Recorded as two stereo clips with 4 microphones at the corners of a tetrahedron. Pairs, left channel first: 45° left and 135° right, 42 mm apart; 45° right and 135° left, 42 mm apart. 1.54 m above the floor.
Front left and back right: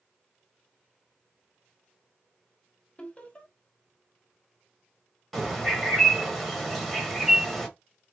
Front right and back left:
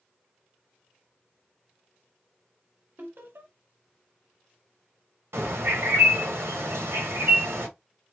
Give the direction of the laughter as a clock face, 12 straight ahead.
8 o'clock.